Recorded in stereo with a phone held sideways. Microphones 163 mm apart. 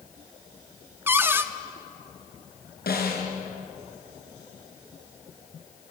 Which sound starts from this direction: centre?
A cupboard door, at 1.1 s.